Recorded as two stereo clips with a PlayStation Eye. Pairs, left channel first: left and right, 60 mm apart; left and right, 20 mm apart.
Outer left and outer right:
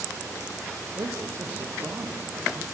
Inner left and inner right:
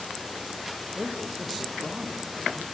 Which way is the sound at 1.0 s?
50° right (ahead or behind).